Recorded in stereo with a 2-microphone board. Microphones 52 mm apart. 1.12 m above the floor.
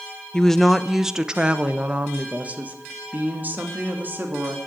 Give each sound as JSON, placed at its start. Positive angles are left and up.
{"t": 0.3, "sound": "a woman speaking", "side_deg": 10, "distance_m": 0.7}